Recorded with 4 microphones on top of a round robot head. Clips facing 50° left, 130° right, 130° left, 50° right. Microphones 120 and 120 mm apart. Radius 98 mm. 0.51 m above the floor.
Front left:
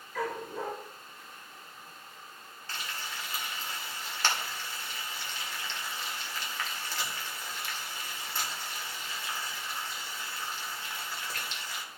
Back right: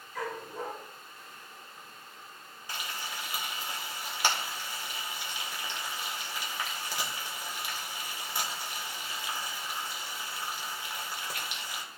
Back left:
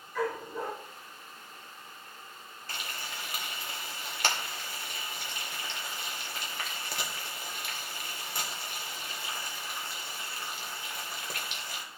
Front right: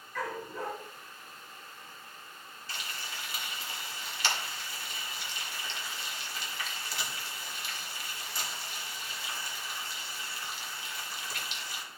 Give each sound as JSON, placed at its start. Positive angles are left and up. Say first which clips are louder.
{"t": 0.1, "sound": "a dog barking", "louder": "front left 2 dB, back left 4 dB", "azimuth_deg": 50, "distance_m": 3.5}
{"t": 2.7, "sound": "frying", "louder": "back right 1 dB, back left 2 dB", "azimuth_deg": 155, "distance_m": 2.0}